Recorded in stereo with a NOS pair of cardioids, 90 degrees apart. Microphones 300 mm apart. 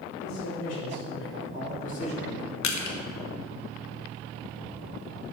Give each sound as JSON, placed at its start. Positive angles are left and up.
{"t": 0.2, "sound": "a man speaking", "azimuth_deg": 65, "distance_m": 3.5}
{"t": 2.6, "sound": "crushing", "azimuth_deg": 65, "distance_m": 1.4}